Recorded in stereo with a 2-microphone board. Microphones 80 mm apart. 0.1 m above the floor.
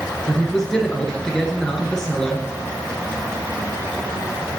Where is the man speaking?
10° left (ahead or behind), 1.3 m.